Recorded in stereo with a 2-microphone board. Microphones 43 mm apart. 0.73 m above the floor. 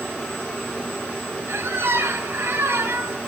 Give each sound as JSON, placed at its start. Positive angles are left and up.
{"t": 1.5, "sound": "a squeak", "side_deg": -75, "distance_m": 2.0}